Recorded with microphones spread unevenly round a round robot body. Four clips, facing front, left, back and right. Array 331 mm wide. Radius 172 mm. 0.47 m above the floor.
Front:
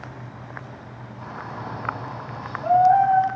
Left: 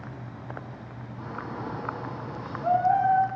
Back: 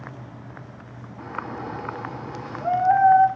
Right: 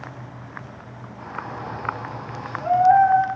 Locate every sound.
1.2 s a shout: 150° left, 6.5 m